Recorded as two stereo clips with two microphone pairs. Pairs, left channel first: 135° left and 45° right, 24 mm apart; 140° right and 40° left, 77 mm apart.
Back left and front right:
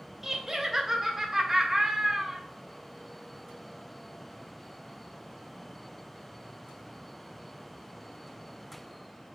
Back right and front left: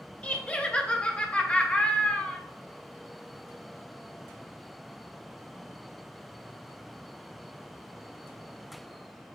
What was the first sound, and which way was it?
Laughter, 100° right.